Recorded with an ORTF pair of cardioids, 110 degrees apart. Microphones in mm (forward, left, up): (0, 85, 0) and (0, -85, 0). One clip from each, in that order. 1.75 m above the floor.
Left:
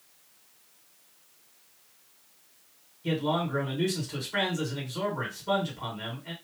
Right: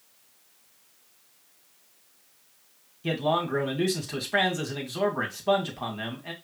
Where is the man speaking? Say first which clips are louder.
Right 3 dB; 50° right, 2.5 m.